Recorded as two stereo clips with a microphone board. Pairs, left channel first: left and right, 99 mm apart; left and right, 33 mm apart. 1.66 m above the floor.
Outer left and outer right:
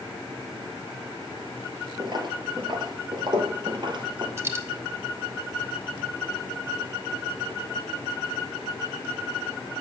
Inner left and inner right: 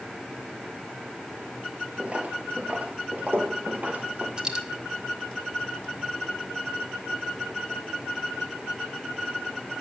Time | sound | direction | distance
2.0 | footsteps | 45° right (ahead or behind) | 2.5 m
4.4 | a dropped coin | 25° right (ahead or behind) | 1.3 m